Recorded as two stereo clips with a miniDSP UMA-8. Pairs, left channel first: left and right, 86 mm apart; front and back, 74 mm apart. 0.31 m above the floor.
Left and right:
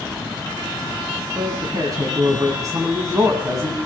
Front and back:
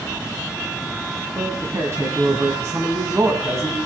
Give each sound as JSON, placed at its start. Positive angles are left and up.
{"t": 1.4, "sound": "a man speaking", "azimuth_deg": -130, "distance_m": 2.0}